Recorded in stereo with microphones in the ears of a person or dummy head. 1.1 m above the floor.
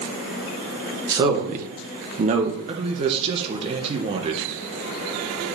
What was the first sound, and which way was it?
A man speaking, 20° right (ahead or behind).